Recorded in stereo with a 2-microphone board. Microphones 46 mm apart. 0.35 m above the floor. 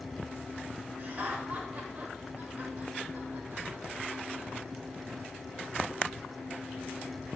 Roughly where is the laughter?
Right.